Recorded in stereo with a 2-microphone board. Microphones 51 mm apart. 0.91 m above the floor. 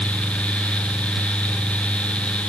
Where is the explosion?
No explosion in this recording.